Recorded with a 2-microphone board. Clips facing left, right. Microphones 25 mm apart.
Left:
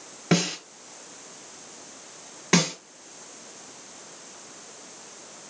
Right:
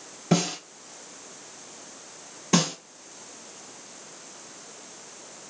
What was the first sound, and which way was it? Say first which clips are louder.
A snare drum: left 1 dB; 40° left (ahead or behind).